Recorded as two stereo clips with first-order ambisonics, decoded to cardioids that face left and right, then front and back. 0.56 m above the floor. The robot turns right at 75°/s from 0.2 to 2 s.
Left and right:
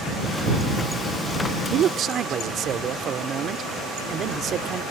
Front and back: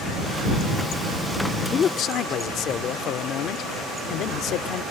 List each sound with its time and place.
1.7 s a man speaking: 60° right; by 4.8 s 35° right